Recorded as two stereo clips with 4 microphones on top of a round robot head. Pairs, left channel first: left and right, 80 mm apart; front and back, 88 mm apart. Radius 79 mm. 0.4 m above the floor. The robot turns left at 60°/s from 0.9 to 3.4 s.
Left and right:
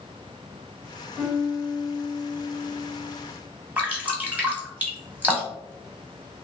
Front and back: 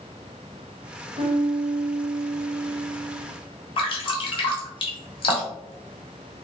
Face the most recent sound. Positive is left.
turn(degrees=-20)